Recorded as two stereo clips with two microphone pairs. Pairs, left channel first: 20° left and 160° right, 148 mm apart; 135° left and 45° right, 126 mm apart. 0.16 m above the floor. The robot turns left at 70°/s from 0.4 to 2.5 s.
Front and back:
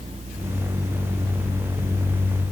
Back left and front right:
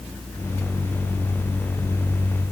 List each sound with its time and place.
Only background noise.